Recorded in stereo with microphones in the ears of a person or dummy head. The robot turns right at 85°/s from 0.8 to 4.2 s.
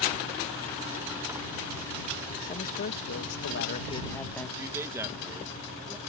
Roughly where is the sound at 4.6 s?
Centre.